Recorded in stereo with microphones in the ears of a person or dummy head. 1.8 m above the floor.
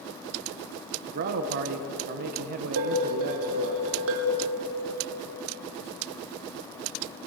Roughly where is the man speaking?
Right.